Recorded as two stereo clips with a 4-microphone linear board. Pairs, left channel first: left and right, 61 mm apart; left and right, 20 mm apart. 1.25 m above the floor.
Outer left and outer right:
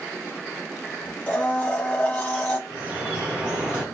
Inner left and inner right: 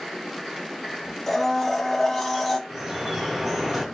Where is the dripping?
15° right (ahead or behind), 1.3 m.